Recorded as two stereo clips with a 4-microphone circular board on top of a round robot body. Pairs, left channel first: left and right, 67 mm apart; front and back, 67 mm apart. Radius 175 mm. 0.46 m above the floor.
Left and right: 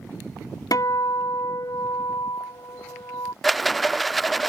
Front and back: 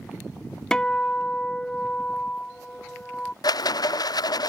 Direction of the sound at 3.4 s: Straight ahead.